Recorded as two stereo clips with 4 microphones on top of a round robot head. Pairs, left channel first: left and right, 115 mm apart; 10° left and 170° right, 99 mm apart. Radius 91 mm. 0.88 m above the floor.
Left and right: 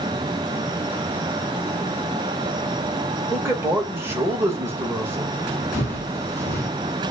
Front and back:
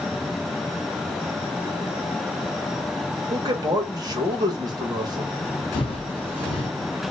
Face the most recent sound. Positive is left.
turn(degrees=20)